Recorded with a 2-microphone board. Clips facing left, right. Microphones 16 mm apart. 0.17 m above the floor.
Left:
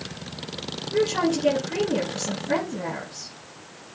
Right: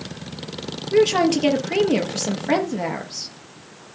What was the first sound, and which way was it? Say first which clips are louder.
A woman speaking: right 6 dB; 70° right (ahead or behind).